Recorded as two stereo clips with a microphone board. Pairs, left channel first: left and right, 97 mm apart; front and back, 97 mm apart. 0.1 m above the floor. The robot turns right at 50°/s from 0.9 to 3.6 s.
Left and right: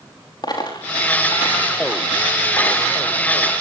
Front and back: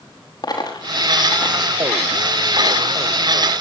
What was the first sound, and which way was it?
A dropped coin, 45° left.